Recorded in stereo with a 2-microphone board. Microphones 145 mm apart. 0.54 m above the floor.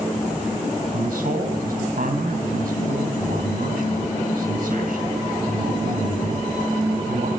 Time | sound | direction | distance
0.9 | a man speaking | 80° right | 3 m